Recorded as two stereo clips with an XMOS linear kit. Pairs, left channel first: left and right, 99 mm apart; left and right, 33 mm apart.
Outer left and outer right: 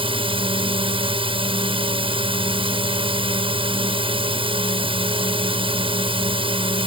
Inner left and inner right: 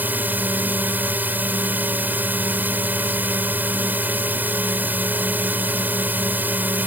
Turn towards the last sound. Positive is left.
turn(degrees=-65)  # may be behind; listen again after turning